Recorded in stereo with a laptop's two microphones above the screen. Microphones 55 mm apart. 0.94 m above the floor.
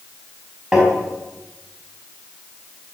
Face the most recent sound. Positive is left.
turn(degrees=-10)  # may be behind; listen again after turning